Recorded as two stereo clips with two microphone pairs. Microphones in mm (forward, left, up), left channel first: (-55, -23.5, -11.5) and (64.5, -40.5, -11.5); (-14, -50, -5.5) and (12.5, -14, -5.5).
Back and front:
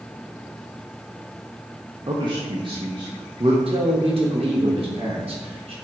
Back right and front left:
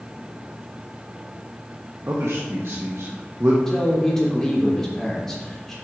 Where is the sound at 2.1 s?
35° left, 1.1 m.